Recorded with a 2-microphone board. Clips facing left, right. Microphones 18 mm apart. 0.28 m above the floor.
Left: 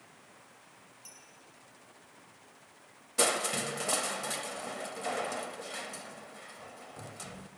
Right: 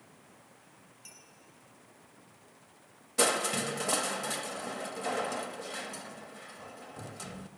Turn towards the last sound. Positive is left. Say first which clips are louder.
# right 1 dB
turn(degrees=0)  # may be behind; listen again after turning